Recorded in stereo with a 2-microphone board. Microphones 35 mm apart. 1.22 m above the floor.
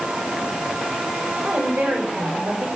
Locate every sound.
1.4 s a woman speaking: 70° right (ahead or behind), 5.5 m